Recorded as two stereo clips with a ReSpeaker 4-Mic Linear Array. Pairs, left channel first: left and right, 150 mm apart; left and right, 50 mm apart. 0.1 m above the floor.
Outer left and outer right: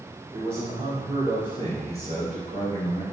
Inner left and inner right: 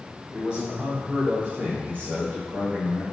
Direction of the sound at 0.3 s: 15° right (ahead or behind).